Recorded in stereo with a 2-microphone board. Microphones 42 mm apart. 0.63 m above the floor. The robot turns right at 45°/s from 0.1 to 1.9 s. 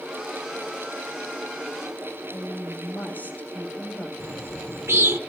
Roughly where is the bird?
Right.